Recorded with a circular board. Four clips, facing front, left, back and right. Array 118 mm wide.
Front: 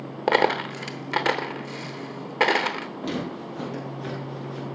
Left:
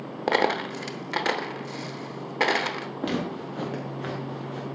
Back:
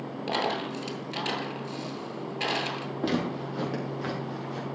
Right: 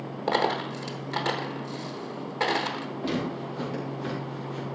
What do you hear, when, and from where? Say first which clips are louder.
0.3 s a dropped coin: left 2 dB, front 8 dB; 25° left, 0.8 m
3.0 s footsteps: left 1 dB, back 3 dB; 125° left, 5.5 m; by 4.7 s 140° left, 4 m